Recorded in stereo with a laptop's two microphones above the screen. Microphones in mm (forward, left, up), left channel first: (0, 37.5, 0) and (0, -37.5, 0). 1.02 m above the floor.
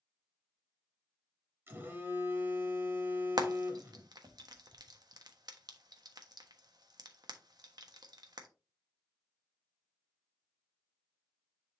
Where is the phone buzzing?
25° right (ahead or behind), 1.3 m.